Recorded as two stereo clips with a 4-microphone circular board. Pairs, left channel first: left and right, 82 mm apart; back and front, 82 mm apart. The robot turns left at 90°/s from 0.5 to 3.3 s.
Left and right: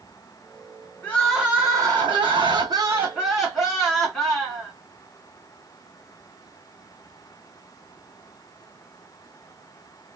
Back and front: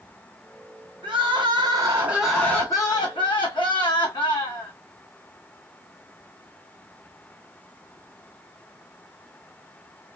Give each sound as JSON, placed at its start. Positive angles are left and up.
{"t": 1.0, "sound": "crying", "azimuth_deg": 25, "distance_m": 3.0}